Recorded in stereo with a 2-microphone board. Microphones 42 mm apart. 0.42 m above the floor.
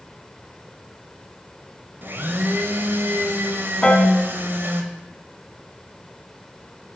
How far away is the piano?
About 3.5 m.